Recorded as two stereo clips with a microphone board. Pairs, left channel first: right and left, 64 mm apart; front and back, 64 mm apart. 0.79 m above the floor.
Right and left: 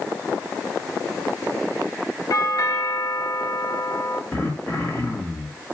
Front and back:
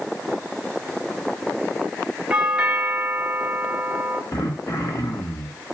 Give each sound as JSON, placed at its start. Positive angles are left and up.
{"t": 2.3, "sound": "a doorbell", "azimuth_deg": -105, "distance_m": 2.0}
{"t": 4.3, "sound": "throat clearing", "azimuth_deg": -35, "distance_m": 5.5}